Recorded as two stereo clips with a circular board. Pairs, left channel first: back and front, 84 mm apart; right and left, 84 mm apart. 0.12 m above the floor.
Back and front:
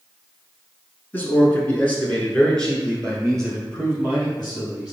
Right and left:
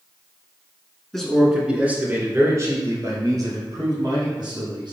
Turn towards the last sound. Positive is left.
turn(degrees=90)